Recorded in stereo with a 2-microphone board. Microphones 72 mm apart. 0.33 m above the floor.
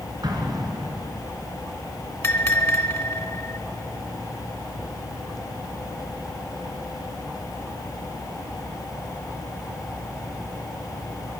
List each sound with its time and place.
0.2 s an explosion: 70° right (ahead or behind), 2.5 m
2.2 s a bell: 40° left (ahead or behind), 1.4 m